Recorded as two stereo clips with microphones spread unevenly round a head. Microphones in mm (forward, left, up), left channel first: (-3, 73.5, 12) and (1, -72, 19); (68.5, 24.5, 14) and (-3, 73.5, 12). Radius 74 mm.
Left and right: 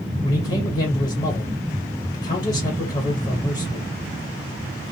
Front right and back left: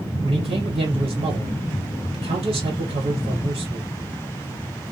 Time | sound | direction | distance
0.2 | a man speaking | 155° left | 1.3 m